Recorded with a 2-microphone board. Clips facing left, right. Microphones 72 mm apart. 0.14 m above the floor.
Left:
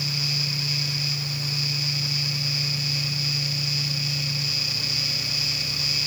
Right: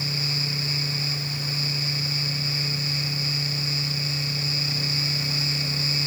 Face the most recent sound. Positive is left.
No sound to turn to.